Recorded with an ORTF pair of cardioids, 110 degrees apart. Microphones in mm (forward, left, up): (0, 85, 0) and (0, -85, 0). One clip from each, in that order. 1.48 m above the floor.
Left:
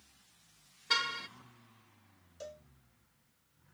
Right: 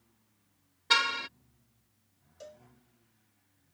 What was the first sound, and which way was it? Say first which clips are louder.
A car horn: right 6 dB; 35° right.